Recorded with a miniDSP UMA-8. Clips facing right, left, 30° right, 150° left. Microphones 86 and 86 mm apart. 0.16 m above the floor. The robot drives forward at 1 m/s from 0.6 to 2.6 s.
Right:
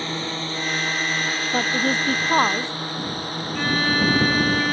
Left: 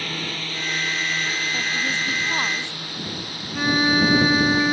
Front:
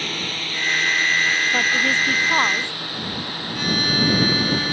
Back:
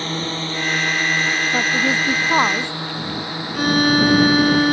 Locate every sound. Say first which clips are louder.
0.0 s a drone: right 3 dB, back 5 dB; 150° right; by 4.7 s 135° right
1.5 s a woman speaking: right 4 dB, back 3 dB; 125° right; by 2.7 s 140° right
3.5 s a violin: left 3 dB, back 7 dB; 160° left